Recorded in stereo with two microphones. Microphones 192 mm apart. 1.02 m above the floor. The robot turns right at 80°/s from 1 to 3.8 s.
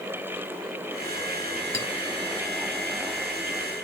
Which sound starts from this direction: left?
A clink, at 1.7 s.